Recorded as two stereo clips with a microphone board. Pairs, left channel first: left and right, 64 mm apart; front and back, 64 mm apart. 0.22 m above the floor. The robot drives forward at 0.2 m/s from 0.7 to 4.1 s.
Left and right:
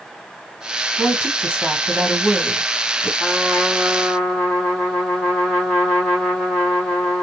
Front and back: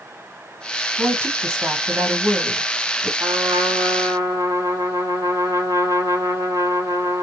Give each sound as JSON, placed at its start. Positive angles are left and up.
{"t": 1.0, "sound": "a woman speaking", "azimuth_deg": -145, "distance_m": 2.0}
{"t": 3.2, "sound": "a trumpet", "azimuth_deg": 175, "distance_m": 3.0}